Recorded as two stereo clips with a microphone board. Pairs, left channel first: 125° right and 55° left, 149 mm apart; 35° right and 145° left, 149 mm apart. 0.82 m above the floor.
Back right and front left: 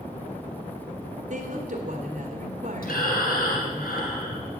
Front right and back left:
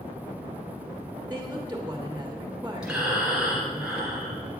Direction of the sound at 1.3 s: 70° left.